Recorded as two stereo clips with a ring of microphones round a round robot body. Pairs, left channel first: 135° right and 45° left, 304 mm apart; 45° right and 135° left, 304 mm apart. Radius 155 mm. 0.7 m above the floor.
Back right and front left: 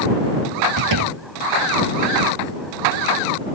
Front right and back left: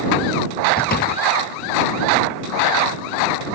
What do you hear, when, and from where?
0.8 s a door slam: 15° left